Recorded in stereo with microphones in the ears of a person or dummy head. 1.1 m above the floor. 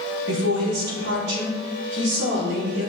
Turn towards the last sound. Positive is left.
turn(degrees=-60)  # may be behind; listen again after turning